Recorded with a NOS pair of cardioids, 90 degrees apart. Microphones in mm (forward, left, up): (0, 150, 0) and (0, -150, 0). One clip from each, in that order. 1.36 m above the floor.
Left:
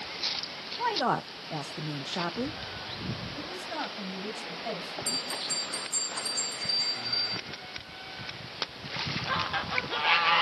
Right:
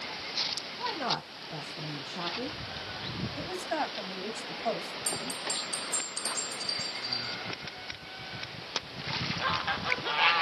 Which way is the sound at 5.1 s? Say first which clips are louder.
Left 3 dB; 25° right.